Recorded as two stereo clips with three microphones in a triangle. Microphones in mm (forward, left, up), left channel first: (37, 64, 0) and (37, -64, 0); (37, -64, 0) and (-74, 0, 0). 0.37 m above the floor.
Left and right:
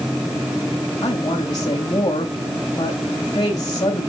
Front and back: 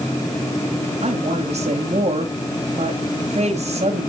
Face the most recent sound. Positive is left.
turn(degrees=140)